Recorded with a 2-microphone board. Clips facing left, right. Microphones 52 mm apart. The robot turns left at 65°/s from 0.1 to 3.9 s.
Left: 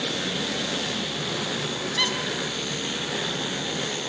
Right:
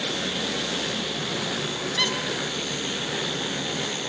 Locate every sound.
2.0 s a squeak: 5° left (ahead or behind), 2.5 m; by 2.1 s 5° right (ahead or behind), 2.5 m